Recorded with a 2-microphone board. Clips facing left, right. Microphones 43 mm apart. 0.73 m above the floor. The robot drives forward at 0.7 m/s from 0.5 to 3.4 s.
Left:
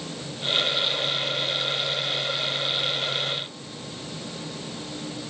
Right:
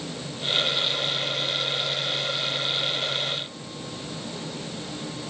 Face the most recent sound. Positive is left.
No sound to turn to.